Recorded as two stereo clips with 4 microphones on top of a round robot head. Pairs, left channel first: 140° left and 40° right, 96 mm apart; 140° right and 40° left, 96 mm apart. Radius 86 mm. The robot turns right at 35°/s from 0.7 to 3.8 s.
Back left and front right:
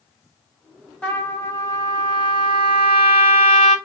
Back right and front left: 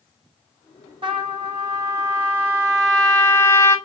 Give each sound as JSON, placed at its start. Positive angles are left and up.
{"t": 1.0, "sound": "a trumpet", "azimuth_deg": 60, "distance_m": 1.4}